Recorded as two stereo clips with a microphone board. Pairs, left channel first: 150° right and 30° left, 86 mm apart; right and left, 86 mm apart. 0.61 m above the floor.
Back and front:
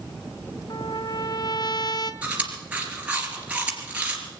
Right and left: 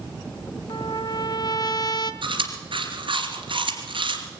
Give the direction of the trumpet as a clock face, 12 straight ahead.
4 o'clock.